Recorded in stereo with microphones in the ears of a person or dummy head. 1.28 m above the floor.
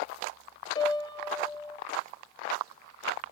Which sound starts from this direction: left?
A piano, at 0.8 s.